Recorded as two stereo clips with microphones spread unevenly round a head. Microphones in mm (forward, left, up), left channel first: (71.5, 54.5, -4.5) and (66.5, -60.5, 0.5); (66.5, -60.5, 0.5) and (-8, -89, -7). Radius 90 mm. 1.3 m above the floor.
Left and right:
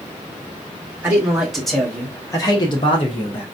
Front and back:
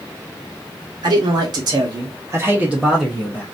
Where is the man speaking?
170° right, 1.2 m; by 3.4 s 90° left, 0.8 m.